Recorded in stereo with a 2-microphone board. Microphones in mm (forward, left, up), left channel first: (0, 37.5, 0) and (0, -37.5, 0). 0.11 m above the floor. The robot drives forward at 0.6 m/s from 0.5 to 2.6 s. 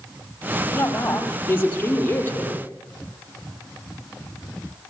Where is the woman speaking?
25° left (ahead or behind), 3 m; by 2.7 s 20° left (ahead or behind), 4 m.